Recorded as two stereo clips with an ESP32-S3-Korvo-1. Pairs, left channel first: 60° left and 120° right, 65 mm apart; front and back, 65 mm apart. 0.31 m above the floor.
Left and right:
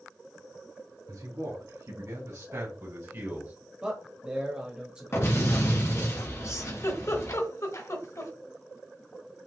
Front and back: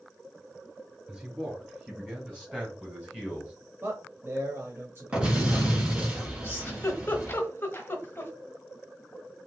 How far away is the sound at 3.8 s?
About 1.0 m.